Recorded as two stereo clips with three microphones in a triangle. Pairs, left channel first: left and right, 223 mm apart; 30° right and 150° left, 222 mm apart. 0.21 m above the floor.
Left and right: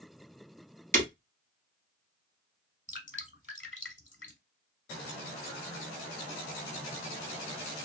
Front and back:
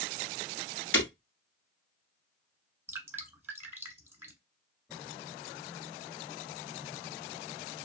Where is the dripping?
75° left, 0.9 m.